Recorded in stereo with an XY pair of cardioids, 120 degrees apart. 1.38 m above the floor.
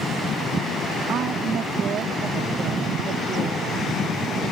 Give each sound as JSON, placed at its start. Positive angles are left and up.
{"t": 1.1, "sound": "a woman speaking", "azimuth_deg": -55}